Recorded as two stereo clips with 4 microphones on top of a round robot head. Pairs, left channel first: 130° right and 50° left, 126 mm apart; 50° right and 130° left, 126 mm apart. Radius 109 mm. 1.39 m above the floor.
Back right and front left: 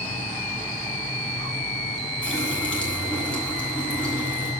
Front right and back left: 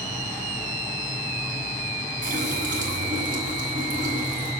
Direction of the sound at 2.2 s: 145° left.